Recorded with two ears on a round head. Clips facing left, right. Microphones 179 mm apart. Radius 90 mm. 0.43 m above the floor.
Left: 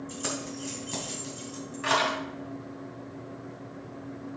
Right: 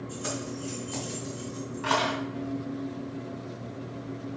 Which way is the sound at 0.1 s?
65° left (ahead or behind).